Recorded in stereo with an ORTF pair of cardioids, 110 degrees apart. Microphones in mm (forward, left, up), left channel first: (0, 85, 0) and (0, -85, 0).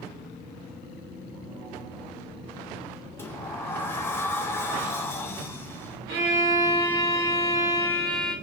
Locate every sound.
3.2 s a sliding door: 15° left, 0.5 m
6.1 s a violin: 65° right, 1.0 m